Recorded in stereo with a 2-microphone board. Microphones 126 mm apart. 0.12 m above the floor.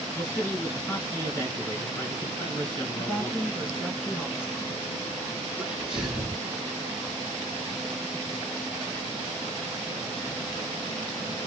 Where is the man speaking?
20° left (ahead or behind), 1.6 m.